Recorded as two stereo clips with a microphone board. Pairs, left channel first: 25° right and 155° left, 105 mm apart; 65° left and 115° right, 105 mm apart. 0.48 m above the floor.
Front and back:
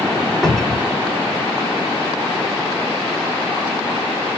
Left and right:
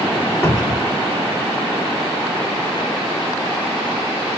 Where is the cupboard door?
65° left, 1.1 m.